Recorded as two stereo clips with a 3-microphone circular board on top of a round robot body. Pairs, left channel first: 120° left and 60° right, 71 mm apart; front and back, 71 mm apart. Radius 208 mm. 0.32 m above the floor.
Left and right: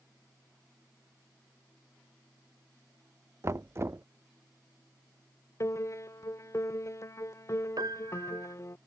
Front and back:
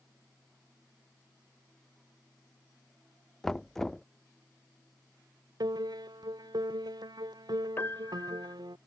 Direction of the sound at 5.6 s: 165° left.